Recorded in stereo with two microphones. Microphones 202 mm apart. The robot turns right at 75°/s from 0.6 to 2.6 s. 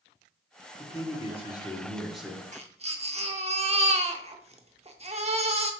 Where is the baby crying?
35° right (ahead or behind), 0.6 m; by 5.7 s 30° right (ahead or behind), 0.6 m.